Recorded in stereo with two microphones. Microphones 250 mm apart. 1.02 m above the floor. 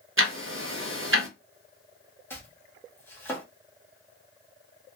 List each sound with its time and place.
0.2 s ticking: 60° right (ahead or behind), 0.8 m
2.3 s chopping: 10° left (ahead or behind), 1.2 m